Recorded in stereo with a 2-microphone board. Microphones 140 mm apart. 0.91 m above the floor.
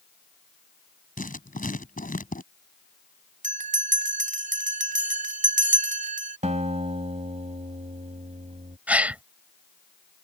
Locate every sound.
1.2 s writing: 80° left
3.4 s a bell: 65° right (ahead or behind)
6.4 s a guitar: 60° right (ahead or behind)
8.9 s a gasp: 10° right (ahead or behind)